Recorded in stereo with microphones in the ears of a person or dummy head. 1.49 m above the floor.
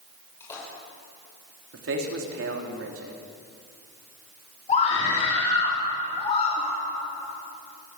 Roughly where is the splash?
Left.